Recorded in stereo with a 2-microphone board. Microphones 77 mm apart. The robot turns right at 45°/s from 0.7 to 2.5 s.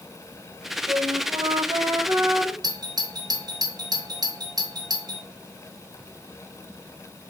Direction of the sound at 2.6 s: 55° right (ahead or behind).